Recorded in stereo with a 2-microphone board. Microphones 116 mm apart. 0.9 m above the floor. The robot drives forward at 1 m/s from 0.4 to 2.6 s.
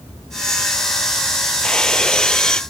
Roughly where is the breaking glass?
Centre.